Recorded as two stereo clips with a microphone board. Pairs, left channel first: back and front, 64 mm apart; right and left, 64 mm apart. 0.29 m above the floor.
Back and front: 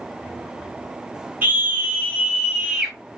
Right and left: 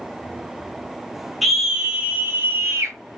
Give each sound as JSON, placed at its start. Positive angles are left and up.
{"t": 1.4, "sound": "a scream", "azimuth_deg": 5, "distance_m": 1.3}